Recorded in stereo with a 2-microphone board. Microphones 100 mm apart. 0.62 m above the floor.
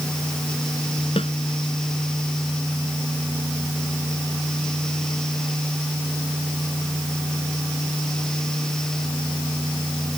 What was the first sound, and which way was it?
A snare drum, 70° left (ahead or behind).